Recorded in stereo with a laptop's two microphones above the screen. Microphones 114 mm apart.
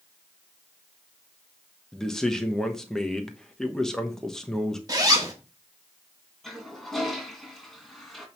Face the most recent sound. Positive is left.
turn(degrees=0)  # may be behind; listen again after turning